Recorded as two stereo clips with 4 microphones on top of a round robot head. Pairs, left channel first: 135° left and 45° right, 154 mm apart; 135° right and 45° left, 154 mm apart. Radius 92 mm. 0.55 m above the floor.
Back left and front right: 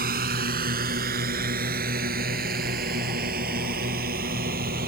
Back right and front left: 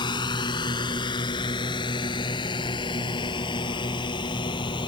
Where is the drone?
75° right.